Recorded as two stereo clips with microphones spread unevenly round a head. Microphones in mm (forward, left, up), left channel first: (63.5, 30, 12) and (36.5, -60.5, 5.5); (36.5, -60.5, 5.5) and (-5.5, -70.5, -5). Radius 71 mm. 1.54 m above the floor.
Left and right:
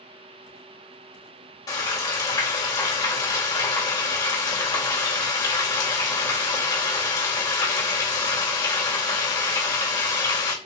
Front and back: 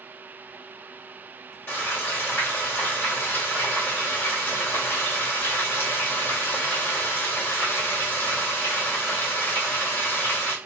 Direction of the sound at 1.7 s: 40° left.